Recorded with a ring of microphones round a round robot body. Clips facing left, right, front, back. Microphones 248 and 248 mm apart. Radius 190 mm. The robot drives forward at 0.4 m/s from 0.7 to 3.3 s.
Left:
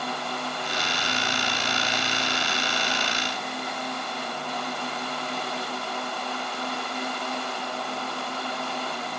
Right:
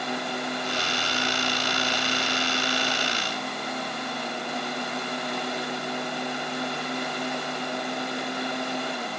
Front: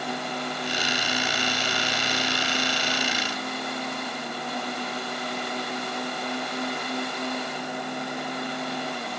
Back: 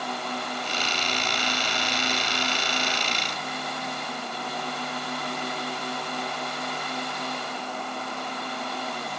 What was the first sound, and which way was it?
Only background noise.